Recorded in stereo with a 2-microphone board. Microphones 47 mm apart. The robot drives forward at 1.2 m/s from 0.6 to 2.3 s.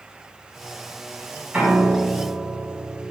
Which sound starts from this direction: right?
A piano, at 1.5 s.